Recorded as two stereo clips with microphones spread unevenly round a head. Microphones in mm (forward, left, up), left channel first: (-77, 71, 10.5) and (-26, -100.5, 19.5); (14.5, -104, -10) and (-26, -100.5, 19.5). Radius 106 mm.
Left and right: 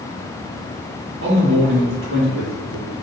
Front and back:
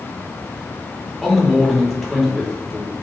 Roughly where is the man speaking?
Right.